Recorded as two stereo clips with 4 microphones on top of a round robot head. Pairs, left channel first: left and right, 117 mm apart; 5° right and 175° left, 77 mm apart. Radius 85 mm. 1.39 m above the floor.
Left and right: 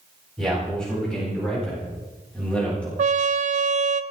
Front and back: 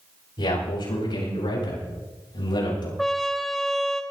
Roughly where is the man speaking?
Ahead.